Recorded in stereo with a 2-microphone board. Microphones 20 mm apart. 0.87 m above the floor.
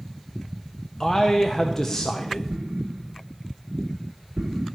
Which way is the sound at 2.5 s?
55° right (ahead or behind).